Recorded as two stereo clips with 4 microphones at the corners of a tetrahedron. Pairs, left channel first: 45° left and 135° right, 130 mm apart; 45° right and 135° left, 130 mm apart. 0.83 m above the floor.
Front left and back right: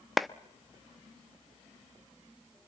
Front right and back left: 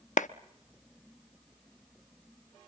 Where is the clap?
45° right, 0.7 m.